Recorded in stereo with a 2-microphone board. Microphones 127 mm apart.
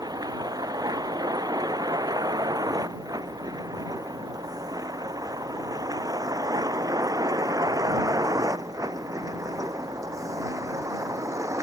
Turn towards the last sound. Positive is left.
turn(degrees=-25)  # may be behind; listen again after turning